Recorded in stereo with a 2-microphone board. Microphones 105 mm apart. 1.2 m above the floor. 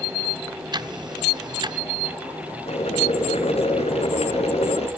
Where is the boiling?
80° left, 4 m.